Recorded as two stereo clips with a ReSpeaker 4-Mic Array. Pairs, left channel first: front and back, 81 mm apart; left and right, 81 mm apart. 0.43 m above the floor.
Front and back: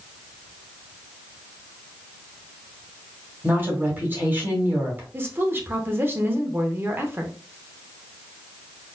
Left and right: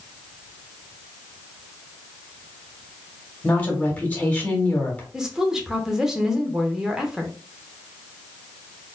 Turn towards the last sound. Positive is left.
turn(degrees=-165)